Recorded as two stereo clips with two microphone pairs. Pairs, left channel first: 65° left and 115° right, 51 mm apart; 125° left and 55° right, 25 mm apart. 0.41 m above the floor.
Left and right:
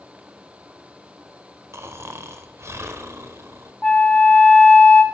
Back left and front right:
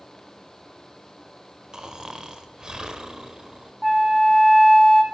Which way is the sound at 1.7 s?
110° right.